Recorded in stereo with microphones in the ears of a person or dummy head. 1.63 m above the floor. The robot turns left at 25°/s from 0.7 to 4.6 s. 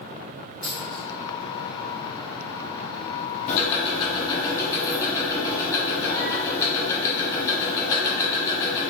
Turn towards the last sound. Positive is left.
turn(degrees=20)  # may be behind; listen again after turning